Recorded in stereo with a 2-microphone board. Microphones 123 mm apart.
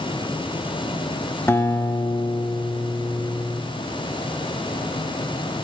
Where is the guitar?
20° left (ahead or behind), 0.7 m.